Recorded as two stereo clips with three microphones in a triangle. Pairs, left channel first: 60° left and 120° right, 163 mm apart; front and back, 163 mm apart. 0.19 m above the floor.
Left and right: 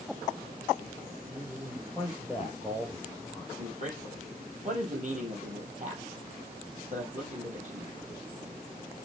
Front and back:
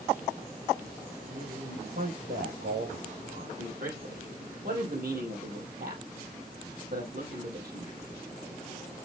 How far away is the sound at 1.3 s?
About 3.5 m.